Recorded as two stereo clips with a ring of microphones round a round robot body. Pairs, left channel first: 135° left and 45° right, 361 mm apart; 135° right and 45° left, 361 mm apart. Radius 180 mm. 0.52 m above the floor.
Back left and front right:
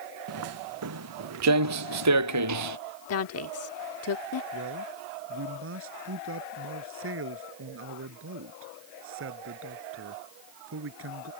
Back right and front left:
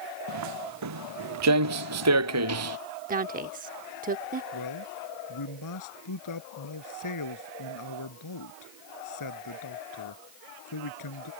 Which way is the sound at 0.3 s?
5° left.